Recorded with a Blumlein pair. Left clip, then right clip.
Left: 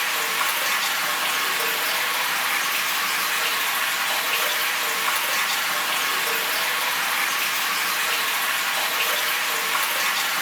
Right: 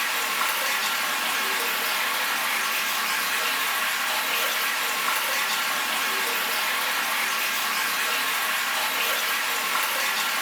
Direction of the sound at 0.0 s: 15° left.